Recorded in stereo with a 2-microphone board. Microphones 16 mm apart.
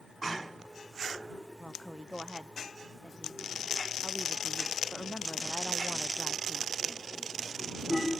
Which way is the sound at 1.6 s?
55° left (ahead or behind).